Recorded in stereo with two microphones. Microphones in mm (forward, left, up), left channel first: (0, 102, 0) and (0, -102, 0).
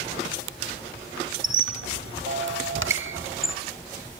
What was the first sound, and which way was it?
A squeak, 75° right (ahead or behind).